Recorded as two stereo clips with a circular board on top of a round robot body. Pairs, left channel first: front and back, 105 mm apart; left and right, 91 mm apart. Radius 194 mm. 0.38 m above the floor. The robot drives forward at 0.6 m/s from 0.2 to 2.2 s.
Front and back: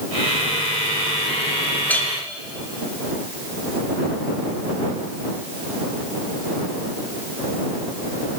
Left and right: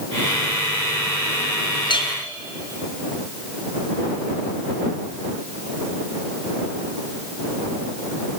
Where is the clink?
70° left, 1.4 m; by 2.1 s 80° left, 1.4 m.